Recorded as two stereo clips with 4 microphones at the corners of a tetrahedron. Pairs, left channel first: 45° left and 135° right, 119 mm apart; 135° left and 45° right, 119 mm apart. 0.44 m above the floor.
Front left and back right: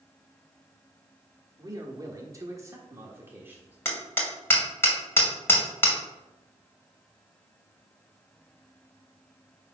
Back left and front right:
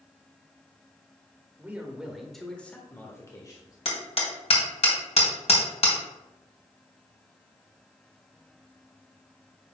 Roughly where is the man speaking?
Right.